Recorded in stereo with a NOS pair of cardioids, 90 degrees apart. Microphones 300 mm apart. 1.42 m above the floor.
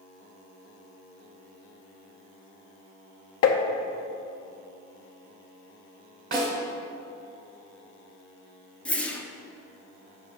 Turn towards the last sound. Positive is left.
turn(degrees=5)